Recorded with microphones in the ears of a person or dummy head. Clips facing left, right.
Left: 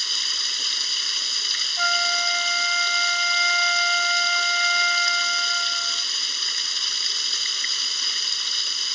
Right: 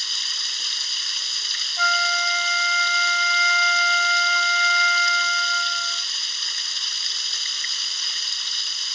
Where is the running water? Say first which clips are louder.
Left 3 dB; 70° left (ahead or behind).